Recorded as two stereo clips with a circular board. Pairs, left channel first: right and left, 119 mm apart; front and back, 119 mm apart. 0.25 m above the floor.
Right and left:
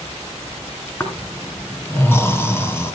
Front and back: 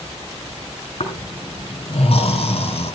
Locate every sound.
1.0 s snoring: 25° right, 2 m